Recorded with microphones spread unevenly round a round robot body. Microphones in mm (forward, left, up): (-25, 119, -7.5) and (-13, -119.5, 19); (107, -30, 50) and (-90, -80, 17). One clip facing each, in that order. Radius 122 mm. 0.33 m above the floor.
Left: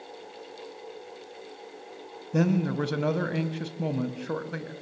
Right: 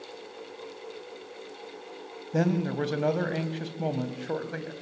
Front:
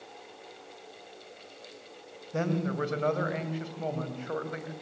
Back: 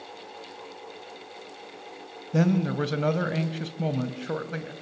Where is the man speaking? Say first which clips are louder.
Left 1 dB, back 6 dB; 165° left, 2.5 m.